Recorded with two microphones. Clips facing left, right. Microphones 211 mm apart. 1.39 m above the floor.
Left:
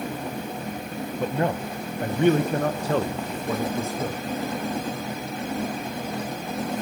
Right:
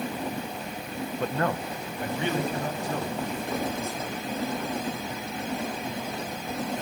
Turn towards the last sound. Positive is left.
turn(degrees=85)